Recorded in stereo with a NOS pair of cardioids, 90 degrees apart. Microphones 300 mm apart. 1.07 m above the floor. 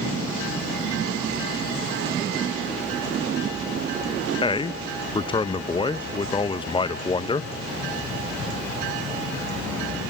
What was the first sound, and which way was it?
A man speaking, 15° left.